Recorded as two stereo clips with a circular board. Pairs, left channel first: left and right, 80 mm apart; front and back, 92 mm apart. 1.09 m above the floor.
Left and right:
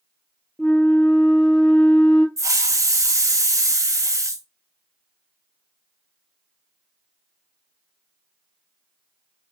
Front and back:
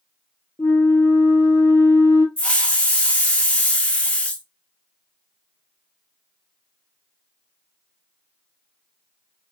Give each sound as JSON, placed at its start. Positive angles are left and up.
{"t": 0.6, "sound": "a flute", "azimuth_deg": 20, "distance_m": 0.5}
{"t": 2.4, "sound": "a hiss", "azimuth_deg": -70, "distance_m": 0.5}